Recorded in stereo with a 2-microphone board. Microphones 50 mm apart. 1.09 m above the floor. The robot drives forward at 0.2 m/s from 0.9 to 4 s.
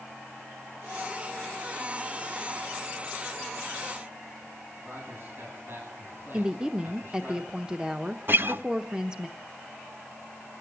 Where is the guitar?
50° right (ahead or behind), 0.7 m.